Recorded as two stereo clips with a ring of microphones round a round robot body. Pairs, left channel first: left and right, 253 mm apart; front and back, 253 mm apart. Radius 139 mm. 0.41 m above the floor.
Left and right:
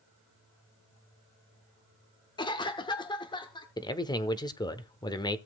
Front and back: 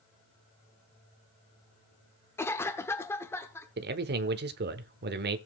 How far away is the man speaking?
About 1.0 m.